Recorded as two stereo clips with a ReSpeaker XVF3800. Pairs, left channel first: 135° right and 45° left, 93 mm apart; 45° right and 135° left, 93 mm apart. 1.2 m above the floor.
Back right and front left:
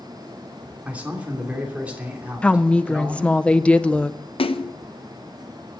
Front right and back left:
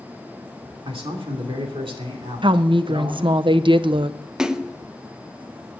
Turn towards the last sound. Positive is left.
turn(degrees=-140)